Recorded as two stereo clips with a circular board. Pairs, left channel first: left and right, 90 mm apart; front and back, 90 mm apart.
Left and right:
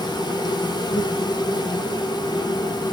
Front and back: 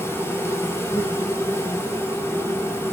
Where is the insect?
60° left, 1.5 m.